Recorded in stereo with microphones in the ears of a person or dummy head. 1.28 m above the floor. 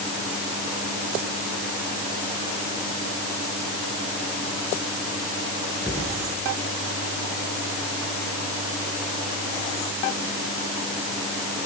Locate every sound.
5.8 s a cupboard door: 5° right (ahead or behind), 8.5 m